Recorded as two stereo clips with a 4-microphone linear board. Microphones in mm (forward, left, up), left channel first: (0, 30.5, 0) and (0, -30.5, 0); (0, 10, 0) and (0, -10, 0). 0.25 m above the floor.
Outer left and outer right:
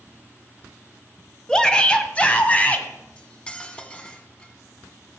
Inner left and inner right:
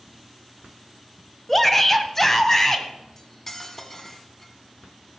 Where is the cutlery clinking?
20° left (ahead or behind), 1.2 m.